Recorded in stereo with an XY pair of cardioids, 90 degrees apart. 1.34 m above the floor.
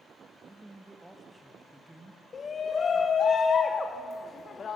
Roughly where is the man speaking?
Ahead.